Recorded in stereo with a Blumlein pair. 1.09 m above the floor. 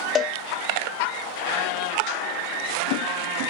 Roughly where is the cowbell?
Ahead left.